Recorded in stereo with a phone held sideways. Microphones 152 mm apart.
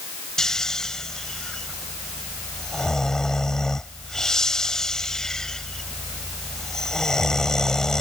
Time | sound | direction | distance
0.4 | snoring | 5° left (ahead or behind) | ?